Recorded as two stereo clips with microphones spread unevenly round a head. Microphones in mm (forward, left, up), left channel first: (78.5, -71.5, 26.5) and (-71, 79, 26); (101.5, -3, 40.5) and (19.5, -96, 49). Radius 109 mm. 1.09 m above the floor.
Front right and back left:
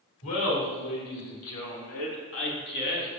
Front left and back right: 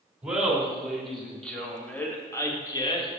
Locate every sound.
0.2 s laughter: 50° right, 3.5 m; by 3.1 s straight ahead, 1.9 m